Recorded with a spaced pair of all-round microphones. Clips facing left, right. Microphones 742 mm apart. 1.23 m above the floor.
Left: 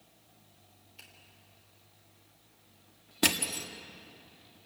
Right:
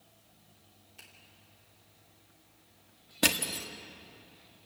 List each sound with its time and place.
1.0 s a finger snap: 70° right (ahead or behind), 3.5 m
3.2 s crushing: 10° right (ahead or behind), 1.2 m